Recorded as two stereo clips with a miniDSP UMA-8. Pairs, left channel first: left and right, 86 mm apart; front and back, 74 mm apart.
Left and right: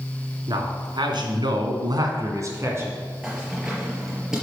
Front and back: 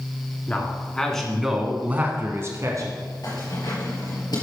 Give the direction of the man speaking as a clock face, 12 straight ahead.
2 o'clock.